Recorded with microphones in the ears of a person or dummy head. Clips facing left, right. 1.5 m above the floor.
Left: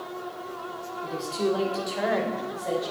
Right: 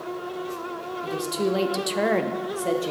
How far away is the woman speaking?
About 0.9 m.